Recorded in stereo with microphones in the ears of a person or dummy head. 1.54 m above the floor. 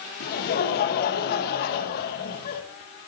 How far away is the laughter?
About 1.4 m.